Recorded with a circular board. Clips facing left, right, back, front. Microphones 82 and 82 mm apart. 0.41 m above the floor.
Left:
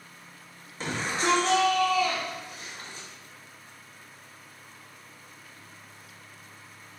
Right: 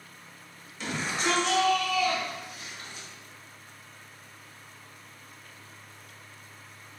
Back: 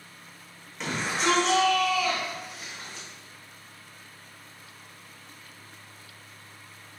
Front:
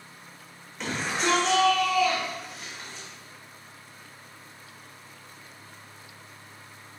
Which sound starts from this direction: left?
A shout, at 0.8 s.